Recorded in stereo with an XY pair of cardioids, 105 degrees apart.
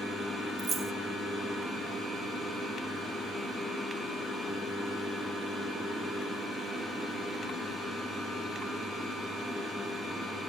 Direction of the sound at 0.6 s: 50° right.